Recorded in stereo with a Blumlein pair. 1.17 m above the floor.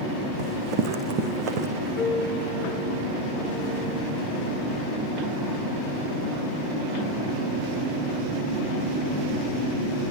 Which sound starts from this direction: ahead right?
Running footsteps, at 0.4 s.